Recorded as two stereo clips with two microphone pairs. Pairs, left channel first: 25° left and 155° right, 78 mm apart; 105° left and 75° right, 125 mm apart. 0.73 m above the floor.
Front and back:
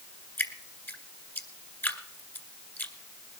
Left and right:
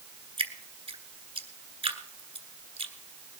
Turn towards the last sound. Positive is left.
turn(degrees=-35)